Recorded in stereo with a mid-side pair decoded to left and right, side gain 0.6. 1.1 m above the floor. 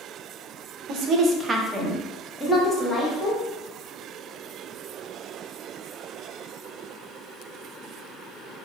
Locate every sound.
0.9 s a woman speaking: 60° right, 0.6 m; by 3.4 s 20° left, 1.4 m